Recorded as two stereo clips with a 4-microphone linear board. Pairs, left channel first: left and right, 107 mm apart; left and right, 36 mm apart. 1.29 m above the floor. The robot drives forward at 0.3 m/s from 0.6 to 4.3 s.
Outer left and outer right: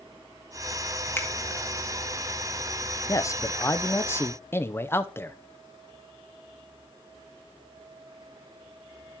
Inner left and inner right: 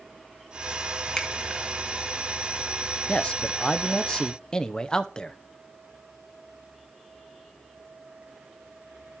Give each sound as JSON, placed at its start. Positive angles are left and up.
{"t": 1.2, "sound": "a finger snap", "side_deg": 20, "distance_m": 2.5}
{"t": 3.1, "sound": "a man speaking", "side_deg": 30, "distance_m": 0.6}